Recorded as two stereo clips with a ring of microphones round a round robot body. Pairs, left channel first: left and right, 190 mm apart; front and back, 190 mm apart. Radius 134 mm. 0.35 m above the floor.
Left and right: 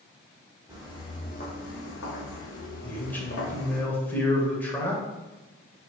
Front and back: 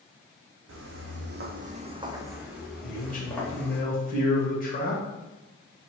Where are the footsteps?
175° right, 0.9 m; by 3.8 s 80° left, 2 m.